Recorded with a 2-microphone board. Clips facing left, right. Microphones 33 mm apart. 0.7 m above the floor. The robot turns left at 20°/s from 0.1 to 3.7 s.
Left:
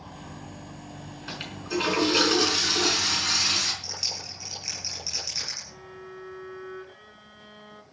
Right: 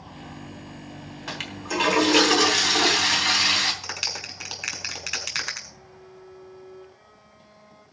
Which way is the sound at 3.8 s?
75° right (ahead or behind).